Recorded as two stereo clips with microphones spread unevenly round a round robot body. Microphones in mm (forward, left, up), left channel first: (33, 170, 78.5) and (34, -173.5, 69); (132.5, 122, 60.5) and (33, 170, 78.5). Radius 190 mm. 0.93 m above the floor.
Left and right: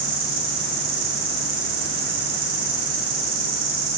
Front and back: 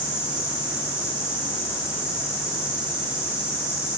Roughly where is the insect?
Behind right.